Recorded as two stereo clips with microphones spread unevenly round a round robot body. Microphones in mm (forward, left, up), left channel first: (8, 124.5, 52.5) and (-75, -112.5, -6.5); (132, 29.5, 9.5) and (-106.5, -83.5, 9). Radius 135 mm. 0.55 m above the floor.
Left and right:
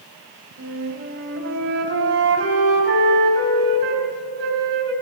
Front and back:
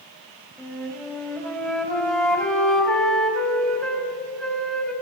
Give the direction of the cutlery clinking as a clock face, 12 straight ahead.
I don't hear cutlery clinking.